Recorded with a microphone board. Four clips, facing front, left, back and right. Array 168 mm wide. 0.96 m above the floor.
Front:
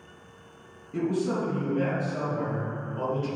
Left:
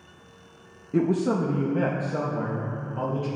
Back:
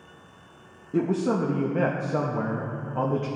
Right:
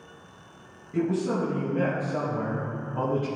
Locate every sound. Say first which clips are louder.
0.9 s a man speaking: left 3 dB, back 3 dB; 125° left, 0.9 m; by 3.3 s 160° right, 1.2 m